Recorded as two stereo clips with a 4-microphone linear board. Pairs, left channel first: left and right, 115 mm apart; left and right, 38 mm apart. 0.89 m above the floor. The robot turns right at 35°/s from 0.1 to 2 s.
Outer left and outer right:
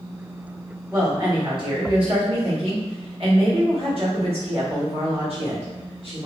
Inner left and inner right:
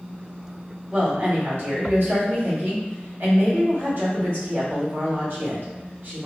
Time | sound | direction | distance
0.9 | a woman speaking | 150° right | 1.6 m